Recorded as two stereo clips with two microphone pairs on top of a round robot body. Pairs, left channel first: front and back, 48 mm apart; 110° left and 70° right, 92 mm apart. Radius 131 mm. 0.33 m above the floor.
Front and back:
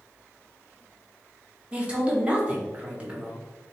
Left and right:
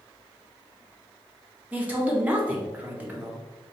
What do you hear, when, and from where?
1.7 s a man speaking: 125° right, 1.5 m